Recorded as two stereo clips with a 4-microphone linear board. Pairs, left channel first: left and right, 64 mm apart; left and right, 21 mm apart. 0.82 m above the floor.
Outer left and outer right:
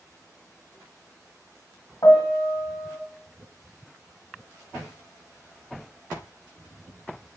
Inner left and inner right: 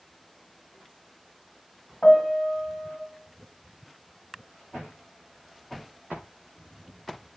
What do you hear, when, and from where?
2.0 s a piano: 70° left (ahead or behind), 1.3 m